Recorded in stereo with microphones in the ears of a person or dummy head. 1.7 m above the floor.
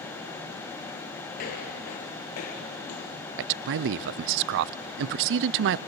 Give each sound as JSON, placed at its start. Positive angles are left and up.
{"t": 1.4, "sound": "footsteps", "side_deg": 30, "distance_m": 2.0}
{"t": 3.4, "sound": "a man speaking", "side_deg": -65, "distance_m": 0.5}